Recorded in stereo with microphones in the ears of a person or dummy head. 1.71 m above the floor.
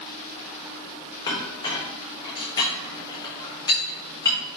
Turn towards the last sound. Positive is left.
turn(degrees=30)  # may be behind; listen again after turning